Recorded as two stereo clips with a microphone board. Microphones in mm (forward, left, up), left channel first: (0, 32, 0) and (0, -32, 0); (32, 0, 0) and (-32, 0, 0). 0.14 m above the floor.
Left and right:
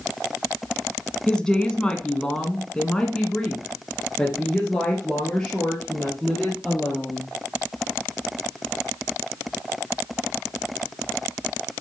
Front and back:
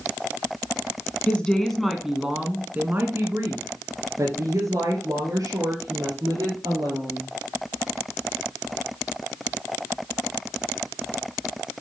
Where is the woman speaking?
35° left, 1.1 m; by 7.3 s 170° left, 3.5 m.